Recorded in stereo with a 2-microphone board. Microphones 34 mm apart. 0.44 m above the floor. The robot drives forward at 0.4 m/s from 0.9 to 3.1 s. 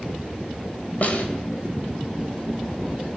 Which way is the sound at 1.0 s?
45° left (ahead or behind).